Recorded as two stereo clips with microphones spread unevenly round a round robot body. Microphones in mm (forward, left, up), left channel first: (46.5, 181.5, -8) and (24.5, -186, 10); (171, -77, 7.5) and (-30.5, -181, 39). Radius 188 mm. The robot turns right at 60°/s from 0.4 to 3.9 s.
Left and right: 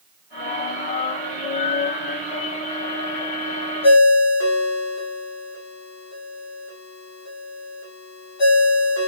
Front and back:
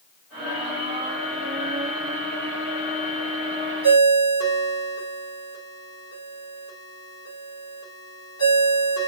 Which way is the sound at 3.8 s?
35° left.